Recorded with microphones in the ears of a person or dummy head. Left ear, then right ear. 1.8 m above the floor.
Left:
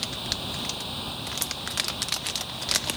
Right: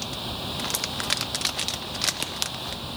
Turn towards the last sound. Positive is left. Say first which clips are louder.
# left 1 dB
turn(degrees=-5)  # may be behind; listen again after turning